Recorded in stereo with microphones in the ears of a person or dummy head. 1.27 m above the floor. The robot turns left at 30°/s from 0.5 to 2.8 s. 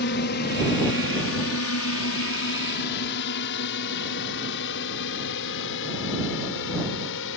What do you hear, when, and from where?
0.0 s a drone: 45° left (ahead or behind); by 7.4 s 70° left (ahead or behind)